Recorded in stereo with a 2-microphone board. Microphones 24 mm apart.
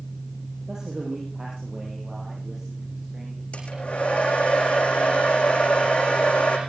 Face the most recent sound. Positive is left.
turn(degrees=55)  # may be behind; listen again after turning